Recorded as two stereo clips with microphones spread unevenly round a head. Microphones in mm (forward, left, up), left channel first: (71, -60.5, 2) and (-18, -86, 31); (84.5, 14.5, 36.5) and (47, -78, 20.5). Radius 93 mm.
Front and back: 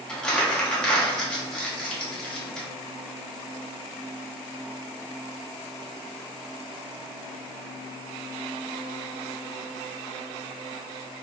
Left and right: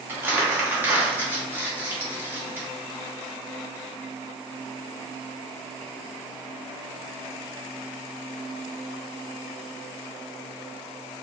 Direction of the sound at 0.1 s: 50° right.